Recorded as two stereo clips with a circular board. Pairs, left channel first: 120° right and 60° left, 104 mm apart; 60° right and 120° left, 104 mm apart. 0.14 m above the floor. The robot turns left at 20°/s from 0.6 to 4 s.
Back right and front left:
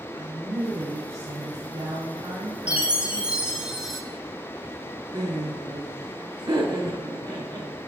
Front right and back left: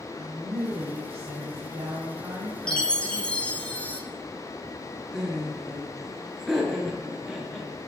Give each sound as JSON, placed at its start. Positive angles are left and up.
{"t": 0.1, "sound": "a woman speaking", "azimuth_deg": 90, "distance_m": 1.6}
{"t": 2.7, "sound": "a chime", "azimuth_deg": 5, "distance_m": 0.7}
{"t": 5.1, "sound": "laughter", "azimuth_deg": 30, "distance_m": 1.7}